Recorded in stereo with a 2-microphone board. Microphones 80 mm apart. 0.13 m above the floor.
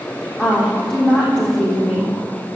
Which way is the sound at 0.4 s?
10° left (ahead or behind).